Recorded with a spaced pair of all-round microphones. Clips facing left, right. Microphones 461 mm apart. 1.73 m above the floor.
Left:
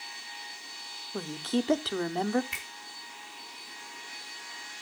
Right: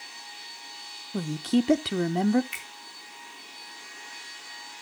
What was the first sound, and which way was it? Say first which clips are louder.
A woman speaking: right 5 dB; 45° right (ahead or behind).